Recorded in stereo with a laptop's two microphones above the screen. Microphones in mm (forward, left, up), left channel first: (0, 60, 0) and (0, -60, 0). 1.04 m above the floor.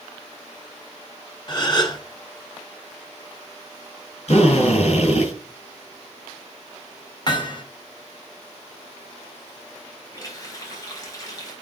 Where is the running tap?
30° left (ahead or behind), 4 m.